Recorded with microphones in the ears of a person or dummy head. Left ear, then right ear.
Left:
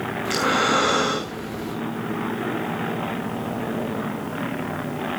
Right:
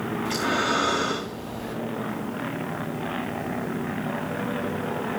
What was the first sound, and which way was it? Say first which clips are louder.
Breathing: left 5 dB; 20° left (ahead or behind).